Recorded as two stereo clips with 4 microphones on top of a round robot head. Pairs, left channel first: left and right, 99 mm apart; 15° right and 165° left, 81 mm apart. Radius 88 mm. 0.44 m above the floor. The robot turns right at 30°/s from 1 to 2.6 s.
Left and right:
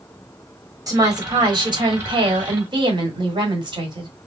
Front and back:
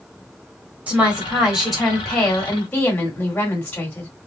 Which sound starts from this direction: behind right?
A woman speaking, at 0.9 s.